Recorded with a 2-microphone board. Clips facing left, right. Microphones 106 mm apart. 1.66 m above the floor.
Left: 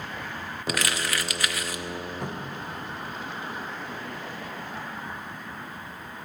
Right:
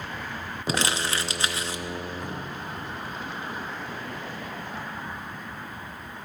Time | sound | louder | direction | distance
0.7 | crumpling | right 2 dB | 25° right (ahead or behind) | 0.6 m
2.2 | a cupboard door | left 1 dB | 85° left | 2 m